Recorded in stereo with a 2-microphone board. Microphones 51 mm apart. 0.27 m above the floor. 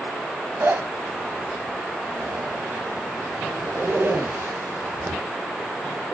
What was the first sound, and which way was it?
A zipper, 50° right (ahead or behind).